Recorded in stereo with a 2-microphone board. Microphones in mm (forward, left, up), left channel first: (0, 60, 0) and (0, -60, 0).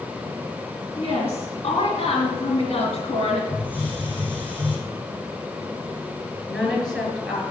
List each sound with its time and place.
1.0 s a woman speaking: 60° left (ahead or behind), 2.5 m
3.5 s a hiss: 15° left (ahead or behind), 5 m
6.5 s a woman speaking: 5° left (ahead or behind), 4.5 m